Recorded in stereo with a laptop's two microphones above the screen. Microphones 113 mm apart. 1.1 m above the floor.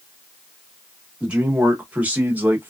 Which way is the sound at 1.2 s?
10° right (ahead or behind).